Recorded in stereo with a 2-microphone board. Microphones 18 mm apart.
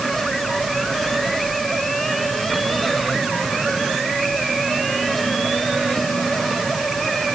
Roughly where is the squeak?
No squeak in this recording.